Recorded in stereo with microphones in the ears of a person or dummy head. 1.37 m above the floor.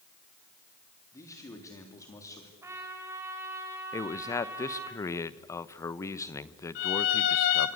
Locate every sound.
1.1 s a man speaking: 20° left (ahead or behind), 3 m
2.6 s a trumpet: 15° right (ahead or behind), 3.5 m
3.9 s a man speaking: 20° left (ahead or behind), 0.9 m
6.8 s a violin: 60° left (ahead or behind), 1.8 m